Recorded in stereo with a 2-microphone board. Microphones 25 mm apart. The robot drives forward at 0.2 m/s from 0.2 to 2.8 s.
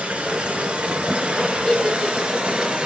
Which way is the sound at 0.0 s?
80° right.